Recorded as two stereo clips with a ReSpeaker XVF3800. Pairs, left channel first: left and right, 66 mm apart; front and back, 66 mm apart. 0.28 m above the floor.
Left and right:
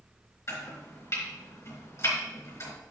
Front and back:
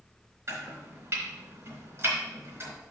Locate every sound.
0.5 s chopping: 130° left, 3.5 m